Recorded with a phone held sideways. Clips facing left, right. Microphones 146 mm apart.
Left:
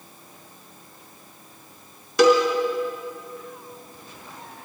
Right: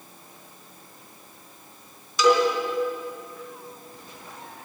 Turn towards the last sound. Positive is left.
turn(degrees=70)  # may be behind; listen again after turning